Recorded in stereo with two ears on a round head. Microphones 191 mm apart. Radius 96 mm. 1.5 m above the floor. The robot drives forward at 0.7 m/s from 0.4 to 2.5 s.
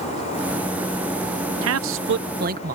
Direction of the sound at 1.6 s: 70° right (ahead or behind).